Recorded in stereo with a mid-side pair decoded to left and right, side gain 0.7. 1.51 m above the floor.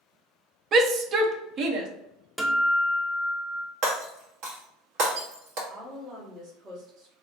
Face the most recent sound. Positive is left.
turn(degrees=-45)